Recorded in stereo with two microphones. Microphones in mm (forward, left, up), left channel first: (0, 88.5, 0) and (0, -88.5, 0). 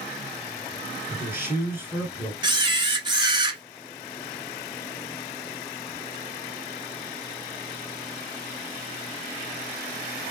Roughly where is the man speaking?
Centre.